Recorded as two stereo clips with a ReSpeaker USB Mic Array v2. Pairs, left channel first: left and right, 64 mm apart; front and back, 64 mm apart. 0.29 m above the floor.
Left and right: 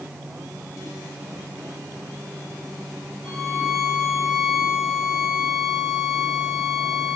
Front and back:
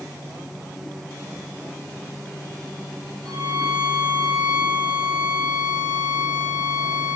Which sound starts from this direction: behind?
A violin, at 3.2 s.